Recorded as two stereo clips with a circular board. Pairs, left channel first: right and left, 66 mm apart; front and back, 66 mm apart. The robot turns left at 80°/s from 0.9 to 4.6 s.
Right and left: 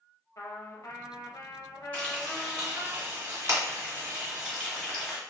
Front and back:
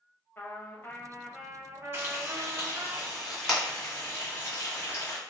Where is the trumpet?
55° right, 0.7 m; by 2.9 s 140° left, 0.7 m.